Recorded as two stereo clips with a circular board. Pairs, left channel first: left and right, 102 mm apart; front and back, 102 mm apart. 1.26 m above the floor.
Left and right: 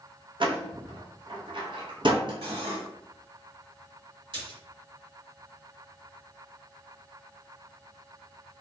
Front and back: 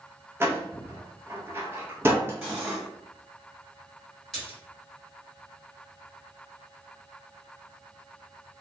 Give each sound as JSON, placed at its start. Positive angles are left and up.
{"t": 0.4, "sound": "a door slam", "azimuth_deg": -115, "distance_m": 0.7}
{"t": 2.4, "sound": "cutlery clinking", "azimuth_deg": -105, "distance_m": 1.6}
{"t": 4.3, "sound": "a splash", "azimuth_deg": -90, "distance_m": 1.5}